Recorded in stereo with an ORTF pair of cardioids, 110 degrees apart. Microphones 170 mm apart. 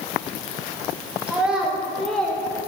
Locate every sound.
1.3 s a child speaking: 10° right, 3 m; by 2.7 s 15° left, 2 m